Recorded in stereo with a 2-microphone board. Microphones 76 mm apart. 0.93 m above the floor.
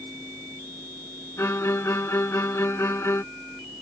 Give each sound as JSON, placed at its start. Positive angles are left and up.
{"t": 1.4, "sound": "a violin", "side_deg": 40}